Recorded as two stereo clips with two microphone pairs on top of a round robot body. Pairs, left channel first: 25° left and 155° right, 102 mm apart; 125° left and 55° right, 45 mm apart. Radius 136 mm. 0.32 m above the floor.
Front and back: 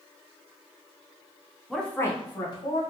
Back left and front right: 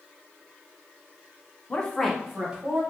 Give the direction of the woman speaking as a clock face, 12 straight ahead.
8 o'clock.